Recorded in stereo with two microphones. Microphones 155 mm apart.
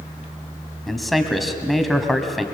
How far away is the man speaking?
About 1.8 m.